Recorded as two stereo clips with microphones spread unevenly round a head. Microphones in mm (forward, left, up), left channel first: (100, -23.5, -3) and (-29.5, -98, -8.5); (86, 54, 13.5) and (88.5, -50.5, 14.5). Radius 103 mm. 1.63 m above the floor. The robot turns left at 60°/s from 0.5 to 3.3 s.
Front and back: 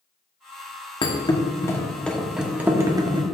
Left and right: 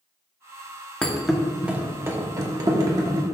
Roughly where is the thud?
Ahead.